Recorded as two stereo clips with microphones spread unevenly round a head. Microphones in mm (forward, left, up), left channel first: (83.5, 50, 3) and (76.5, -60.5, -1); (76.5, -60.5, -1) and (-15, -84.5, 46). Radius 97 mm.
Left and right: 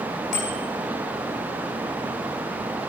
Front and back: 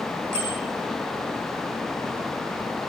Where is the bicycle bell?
120° left, 6.5 m.